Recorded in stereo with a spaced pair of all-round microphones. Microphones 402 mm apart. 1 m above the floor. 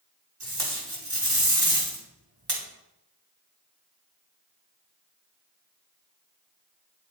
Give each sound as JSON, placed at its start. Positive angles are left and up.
{"t": 0.4, "sound": "tape being pulled", "side_deg": -75, "distance_m": 2.5}